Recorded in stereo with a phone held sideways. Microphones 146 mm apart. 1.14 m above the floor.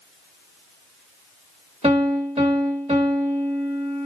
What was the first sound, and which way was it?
A piano, 45° right (ahead or behind).